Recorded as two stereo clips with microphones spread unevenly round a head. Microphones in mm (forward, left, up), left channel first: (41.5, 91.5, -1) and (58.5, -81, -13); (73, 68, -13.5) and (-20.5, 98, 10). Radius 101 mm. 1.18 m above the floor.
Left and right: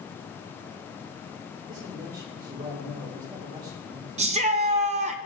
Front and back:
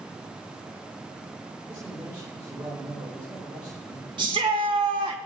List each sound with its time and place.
1.7 s a man speaking: 135° right, 6 m
4.2 s a shout: 135° right, 0.8 m